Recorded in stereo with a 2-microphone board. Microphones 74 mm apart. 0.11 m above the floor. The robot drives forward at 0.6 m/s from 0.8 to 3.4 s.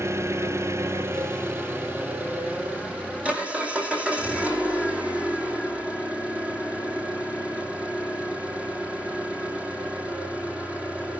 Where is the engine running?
40° right (ahead or behind), 1.2 m; by 11.2 s 20° right (ahead or behind), 2.5 m.